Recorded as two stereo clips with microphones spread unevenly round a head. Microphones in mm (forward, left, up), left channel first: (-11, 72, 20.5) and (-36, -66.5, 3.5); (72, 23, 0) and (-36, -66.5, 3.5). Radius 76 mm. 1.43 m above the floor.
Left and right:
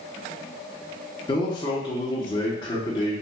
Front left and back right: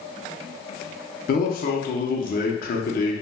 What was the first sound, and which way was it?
A man speaking, 15° left.